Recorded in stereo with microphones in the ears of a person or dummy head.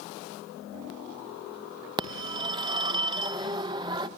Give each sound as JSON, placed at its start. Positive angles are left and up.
{"t": 2.0, "sound": "a phone ringing", "side_deg": -20, "distance_m": 0.9}